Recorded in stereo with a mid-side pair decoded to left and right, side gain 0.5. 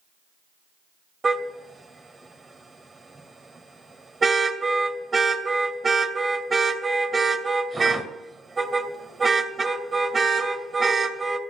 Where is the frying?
I don't hear frying.